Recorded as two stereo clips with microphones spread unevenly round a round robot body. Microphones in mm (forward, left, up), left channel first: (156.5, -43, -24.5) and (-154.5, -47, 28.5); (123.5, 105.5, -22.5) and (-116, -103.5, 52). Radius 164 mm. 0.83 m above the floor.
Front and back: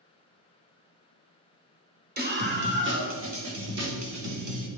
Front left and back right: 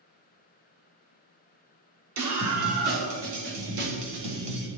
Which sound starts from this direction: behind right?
A scream, at 2.2 s.